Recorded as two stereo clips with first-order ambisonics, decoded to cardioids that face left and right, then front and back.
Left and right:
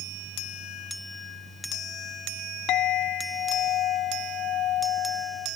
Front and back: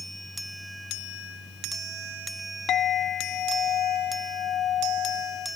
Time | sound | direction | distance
2.7 | a clink | 50° left | ?